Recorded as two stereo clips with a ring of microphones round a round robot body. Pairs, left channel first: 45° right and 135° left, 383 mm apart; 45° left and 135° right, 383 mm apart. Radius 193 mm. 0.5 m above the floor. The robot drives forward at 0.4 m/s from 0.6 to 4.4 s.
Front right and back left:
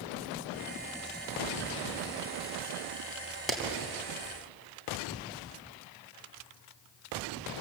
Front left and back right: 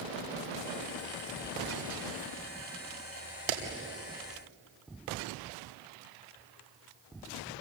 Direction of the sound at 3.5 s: 135° right.